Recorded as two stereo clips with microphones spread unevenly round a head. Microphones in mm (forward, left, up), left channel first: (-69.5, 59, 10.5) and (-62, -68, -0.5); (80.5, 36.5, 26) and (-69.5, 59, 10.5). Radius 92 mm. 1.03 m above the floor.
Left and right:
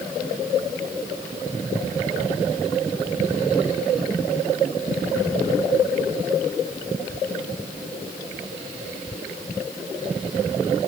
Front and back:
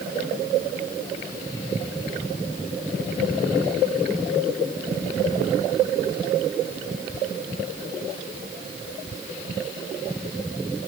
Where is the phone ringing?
I don't hear a phone ringing.